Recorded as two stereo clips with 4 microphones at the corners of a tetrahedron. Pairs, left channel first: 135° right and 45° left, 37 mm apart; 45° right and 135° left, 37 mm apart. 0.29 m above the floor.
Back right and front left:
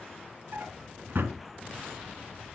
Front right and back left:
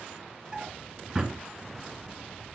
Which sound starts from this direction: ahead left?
A drawer, at 0.5 s.